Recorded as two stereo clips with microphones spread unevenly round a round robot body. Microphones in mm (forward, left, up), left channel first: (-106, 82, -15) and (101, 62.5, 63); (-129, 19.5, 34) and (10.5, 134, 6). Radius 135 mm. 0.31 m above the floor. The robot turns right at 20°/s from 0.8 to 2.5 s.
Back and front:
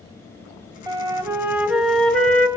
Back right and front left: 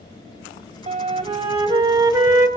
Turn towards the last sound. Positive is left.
turn(degrees=110)